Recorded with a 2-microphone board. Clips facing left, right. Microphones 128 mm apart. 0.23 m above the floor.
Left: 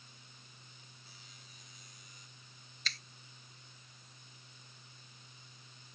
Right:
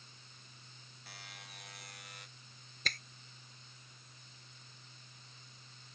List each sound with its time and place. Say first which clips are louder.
1.1 s a buzzer: right 6 dB; 70° right (ahead or behind)
2.9 s a finger snap: right 4 dB; 50° right (ahead or behind)